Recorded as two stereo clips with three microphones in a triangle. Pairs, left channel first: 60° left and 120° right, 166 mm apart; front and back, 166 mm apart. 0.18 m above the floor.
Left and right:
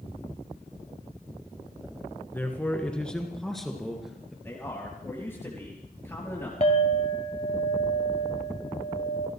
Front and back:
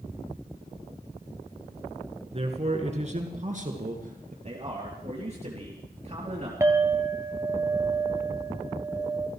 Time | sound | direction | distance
2.3 | a man speaking | 135° left | 2.5 m
4.4 | a man speaking | 135° left | 3.5 m
6.6 | a clink | 110° left | 1.5 m